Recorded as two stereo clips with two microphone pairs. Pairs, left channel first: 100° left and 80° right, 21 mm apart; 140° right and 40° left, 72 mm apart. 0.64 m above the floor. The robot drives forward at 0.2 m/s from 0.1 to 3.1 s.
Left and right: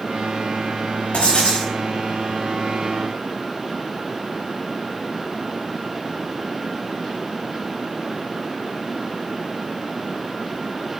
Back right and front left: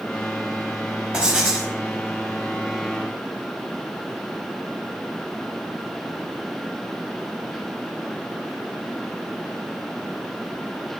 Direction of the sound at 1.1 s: 115° left.